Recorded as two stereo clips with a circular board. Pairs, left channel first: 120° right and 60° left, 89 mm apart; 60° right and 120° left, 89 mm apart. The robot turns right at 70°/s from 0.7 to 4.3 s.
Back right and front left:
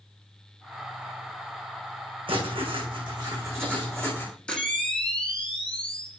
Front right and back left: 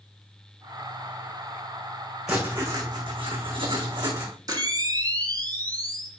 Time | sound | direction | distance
2.3 | writing | 35° left | 6.5 m
4.5 | a camera shutter | 160° left | 3.5 m